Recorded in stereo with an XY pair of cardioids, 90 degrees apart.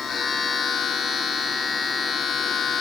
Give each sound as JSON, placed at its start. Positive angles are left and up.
{"t": 0.0, "sound": "a machine running", "azimuth_deg": 70, "distance_m": 7.0}